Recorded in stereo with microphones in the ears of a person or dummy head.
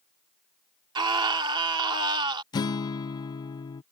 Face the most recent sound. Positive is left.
turn(degrees=20)  # may be behind; listen again after turning